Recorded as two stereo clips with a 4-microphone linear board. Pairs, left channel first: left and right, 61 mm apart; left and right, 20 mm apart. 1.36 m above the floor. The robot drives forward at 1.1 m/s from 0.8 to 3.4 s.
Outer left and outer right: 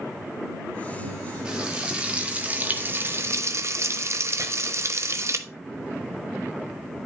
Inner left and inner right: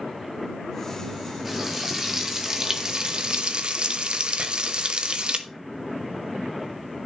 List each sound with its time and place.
1.4 s frying: 15° right (ahead or behind), 2.5 m; by 5.4 s 55° right (ahead or behind), 1.0 m
4.4 s chopping: 70° right (ahead or behind), 2.5 m